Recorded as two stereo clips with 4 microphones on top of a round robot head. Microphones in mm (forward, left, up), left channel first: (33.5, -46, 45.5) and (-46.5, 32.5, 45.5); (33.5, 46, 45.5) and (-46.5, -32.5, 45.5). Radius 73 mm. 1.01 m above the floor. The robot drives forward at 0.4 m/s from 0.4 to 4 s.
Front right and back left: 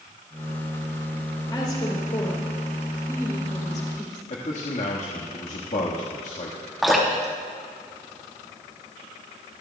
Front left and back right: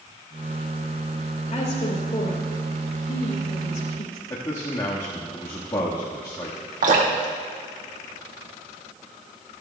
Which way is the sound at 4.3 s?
15° right.